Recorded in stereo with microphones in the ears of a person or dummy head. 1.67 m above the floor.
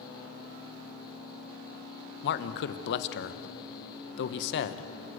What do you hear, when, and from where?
2.2 s a man speaking: 65° left (ahead or behind), 1.3 m